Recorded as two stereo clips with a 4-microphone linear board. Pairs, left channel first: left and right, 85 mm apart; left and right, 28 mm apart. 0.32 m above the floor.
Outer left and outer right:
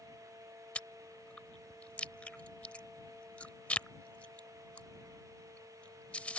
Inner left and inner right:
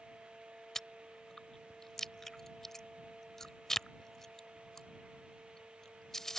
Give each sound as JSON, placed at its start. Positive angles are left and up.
{"t": 0.8, "sound": "chewing", "side_deg": 15}